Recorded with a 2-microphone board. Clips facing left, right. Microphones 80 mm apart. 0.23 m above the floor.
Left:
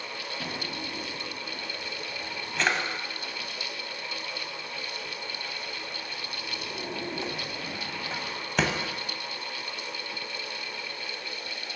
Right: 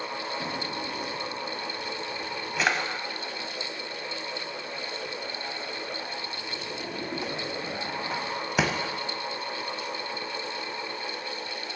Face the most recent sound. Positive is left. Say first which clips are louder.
# right 3 dB
turn(degrees=-5)  # may be behind; listen again after turning